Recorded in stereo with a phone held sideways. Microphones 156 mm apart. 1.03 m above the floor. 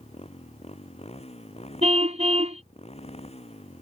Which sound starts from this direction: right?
A car horn, at 1.8 s.